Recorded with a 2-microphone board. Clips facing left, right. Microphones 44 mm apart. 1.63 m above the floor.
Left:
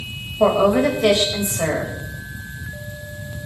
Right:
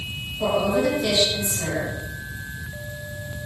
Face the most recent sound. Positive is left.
turn(degrees=60)  # may be behind; listen again after turning